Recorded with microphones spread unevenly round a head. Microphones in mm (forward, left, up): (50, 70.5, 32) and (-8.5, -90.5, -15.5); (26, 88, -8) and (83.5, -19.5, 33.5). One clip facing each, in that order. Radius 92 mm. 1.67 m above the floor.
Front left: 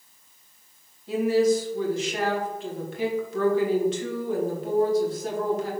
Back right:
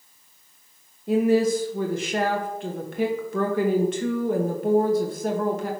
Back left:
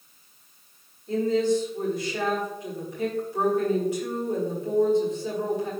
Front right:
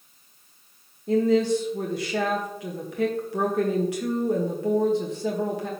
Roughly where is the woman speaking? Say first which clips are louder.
Back right 1 dB, front right 2 dB; ahead right.